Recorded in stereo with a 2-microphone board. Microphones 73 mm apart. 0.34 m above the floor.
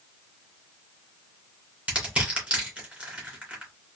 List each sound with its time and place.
1.9 s crushing: 20° right (ahead or behind), 2.5 m